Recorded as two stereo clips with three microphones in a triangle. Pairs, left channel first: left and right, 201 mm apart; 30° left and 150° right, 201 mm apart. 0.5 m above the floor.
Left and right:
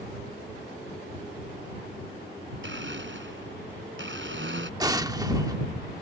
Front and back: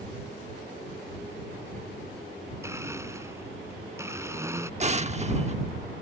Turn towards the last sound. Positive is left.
turn(degrees=-145)